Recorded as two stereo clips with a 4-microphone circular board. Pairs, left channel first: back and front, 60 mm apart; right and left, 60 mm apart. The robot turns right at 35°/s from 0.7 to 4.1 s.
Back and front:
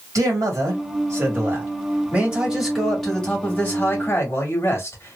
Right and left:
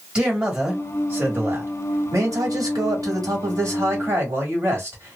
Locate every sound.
0.1 s a man speaking: 15° left, 1.7 m; by 5.2 s 135° left, 1.7 m